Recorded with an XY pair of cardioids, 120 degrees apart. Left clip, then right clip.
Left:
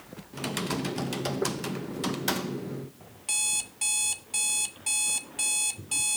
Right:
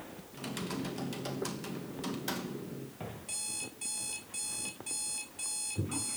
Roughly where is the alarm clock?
Ahead left.